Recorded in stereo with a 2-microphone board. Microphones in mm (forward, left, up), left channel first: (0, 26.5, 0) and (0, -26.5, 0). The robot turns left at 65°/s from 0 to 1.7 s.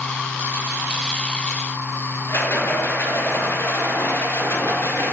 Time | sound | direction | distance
2.3 | a rattle | 40° left (ahead or behind) | 4 m